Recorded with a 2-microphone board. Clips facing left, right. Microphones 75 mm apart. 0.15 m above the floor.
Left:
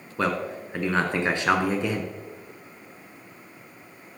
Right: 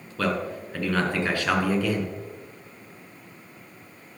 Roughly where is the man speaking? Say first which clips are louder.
Even; left.